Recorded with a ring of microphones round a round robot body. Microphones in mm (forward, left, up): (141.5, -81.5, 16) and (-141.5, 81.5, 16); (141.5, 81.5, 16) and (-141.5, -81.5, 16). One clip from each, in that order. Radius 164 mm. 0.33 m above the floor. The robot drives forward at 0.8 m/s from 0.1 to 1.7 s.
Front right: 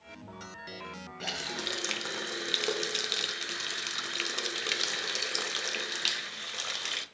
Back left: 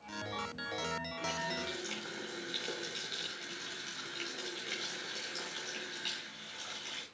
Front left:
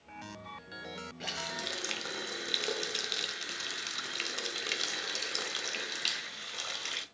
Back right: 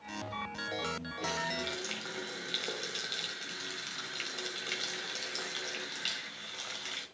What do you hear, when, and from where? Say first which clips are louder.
1.2 s a running tap: front right 6 dB, back right 2 dB; 25° right, 1.5 m; by 7.0 s 35° right, 1.2 m